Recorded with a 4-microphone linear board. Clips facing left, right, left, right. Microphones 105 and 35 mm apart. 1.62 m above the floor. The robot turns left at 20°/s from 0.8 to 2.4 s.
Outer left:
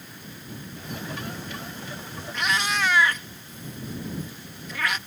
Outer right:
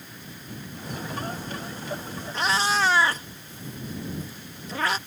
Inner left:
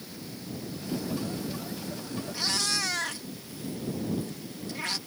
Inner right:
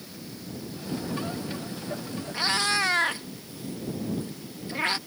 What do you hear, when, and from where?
2.3 s a cat meowing: 35° right (ahead or behind)